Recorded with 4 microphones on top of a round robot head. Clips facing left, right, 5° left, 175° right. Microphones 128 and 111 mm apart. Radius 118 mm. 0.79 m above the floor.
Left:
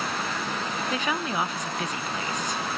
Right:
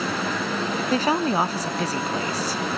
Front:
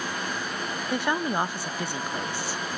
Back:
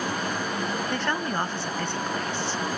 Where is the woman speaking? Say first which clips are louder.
Right 8 dB, front 1 dB; 65° right, 0.6 m.